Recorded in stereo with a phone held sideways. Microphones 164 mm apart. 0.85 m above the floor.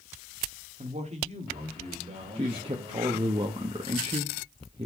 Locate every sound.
0.8 s a man speaking: 45° right (ahead or behind), 1.4 m; by 3.3 s 40° right (ahead or behind), 4.5 m
2.4 s a man speaking: 35° right (ahead or behind), 1.0 m